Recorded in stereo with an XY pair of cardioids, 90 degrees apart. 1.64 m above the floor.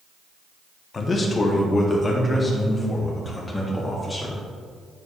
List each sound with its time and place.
0.9 s a man speaking: 40° left, 1.5 m; by 4.4 s 25° left, 3 m